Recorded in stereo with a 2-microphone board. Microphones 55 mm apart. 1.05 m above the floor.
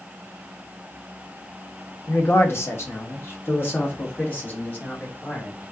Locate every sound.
2.1 s a man speaking: 40° left (ahead or behind), 0.8 m; by 5.7 s 30° left (ahead or behind), 2 m